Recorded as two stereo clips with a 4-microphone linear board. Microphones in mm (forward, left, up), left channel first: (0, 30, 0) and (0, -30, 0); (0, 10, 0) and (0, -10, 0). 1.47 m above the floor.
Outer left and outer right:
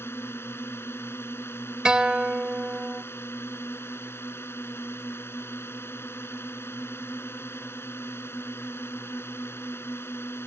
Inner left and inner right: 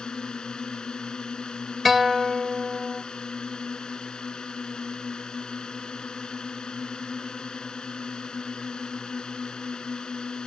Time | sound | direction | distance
0.0 | a drone | 40° left (ahead or behind) | ?
1.9 | a guitar | 15° right (ahead or behind) | ?